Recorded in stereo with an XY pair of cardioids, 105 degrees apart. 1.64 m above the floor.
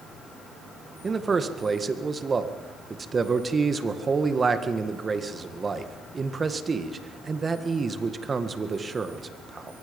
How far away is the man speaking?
About 1.9 m.